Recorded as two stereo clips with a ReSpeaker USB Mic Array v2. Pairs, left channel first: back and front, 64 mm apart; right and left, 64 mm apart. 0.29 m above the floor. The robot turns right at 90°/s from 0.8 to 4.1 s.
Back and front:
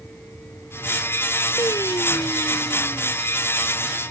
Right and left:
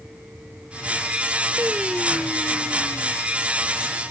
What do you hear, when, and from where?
1.6 s singing: 145° left; by 3.1 s 70° right